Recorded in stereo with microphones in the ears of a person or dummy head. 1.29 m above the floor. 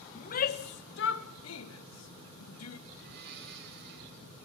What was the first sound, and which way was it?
A shout, 40° left (ahead or behind).